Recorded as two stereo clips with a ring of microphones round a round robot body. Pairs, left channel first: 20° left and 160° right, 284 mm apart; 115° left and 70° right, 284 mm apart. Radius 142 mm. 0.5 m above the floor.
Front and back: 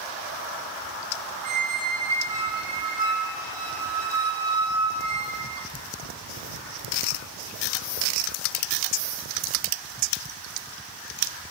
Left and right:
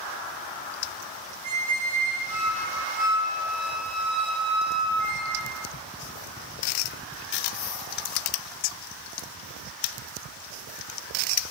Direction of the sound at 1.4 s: 85° right.